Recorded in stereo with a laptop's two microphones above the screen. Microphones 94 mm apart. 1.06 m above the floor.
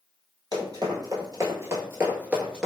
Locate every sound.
0.5 s running footsteps: 45° right (ahead or behind), 1.5 m; by 2.7 s 5° right (ahead or behind), 1.0 m